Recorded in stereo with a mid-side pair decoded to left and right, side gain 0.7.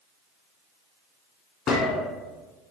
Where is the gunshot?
35° left, 0.8 m.